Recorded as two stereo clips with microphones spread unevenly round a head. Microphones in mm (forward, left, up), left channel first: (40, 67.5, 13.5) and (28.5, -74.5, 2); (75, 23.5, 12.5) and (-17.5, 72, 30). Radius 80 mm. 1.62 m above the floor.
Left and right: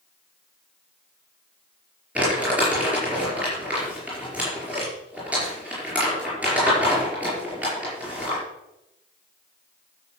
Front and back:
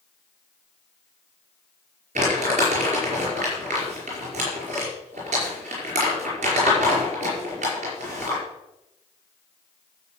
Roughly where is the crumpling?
Behind.